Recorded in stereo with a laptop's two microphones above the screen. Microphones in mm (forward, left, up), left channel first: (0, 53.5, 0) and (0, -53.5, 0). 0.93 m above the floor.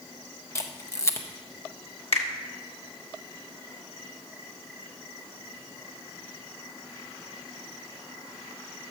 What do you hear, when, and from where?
0.6 s a camera shutter: 25° left (ahead or behind), 0.5 m
2.1 s a finger snap: 65° left (ahead or behind), 1.2 m